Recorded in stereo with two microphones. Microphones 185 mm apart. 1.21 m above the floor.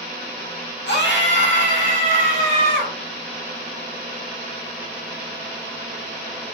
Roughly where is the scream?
Left.